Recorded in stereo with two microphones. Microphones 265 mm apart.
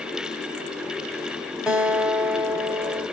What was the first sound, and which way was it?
A guitar, 5° right (ahead or behind).